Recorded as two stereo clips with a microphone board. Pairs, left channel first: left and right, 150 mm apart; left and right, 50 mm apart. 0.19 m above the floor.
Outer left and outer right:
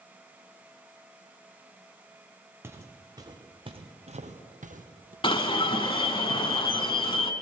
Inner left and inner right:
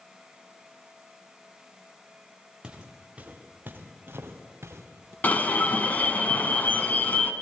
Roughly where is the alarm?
Left.